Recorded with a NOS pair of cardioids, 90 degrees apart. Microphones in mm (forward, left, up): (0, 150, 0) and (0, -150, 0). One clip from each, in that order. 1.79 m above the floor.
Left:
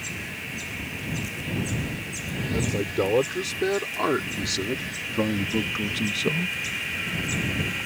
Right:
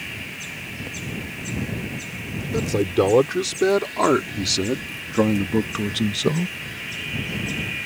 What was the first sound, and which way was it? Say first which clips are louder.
A man speaking: right 6 dB; 50° right.